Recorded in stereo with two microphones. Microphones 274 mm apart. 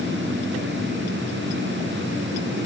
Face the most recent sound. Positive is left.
No sound to turn to.